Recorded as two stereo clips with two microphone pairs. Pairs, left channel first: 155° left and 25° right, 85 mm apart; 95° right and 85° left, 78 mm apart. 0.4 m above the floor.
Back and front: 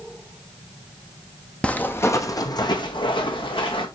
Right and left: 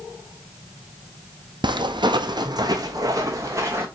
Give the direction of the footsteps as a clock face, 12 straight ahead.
9 o'clock.